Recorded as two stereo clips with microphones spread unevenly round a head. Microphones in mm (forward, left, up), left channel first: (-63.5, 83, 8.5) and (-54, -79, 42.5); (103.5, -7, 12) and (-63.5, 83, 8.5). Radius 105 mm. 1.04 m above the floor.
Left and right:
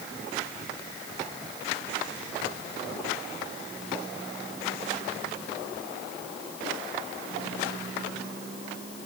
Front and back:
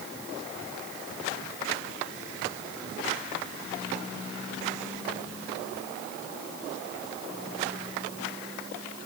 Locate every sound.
Only background noise.